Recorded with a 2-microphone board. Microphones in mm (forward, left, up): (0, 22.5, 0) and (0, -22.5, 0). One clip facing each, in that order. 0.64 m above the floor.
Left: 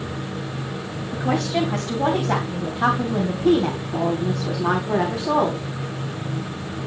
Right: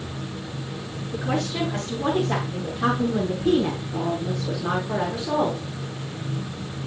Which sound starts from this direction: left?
A woman speaking, at 1.1 s.